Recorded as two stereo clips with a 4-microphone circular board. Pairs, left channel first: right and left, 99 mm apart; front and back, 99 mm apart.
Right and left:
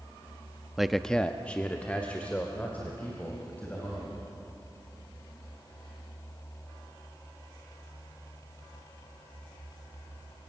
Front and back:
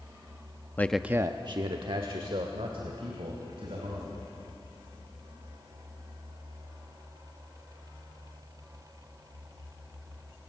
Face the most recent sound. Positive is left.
turn(degrees=-165)